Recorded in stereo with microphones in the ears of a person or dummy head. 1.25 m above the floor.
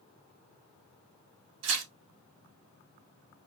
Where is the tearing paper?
85° right, 2 m.